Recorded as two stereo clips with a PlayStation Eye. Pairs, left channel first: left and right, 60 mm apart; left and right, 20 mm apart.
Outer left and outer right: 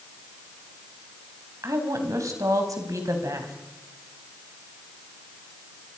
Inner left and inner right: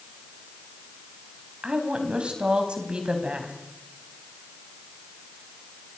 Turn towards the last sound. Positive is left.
turn(degrees=-70)  # may be behind; listen again after turning